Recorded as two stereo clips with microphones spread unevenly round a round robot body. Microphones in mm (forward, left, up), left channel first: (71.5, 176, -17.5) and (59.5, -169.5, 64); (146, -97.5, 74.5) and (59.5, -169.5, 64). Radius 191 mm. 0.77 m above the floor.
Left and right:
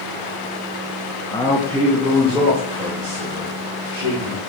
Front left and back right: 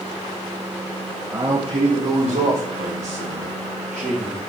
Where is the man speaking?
150° left, 0.6 m; by 4.4 s 175° right, 4 m.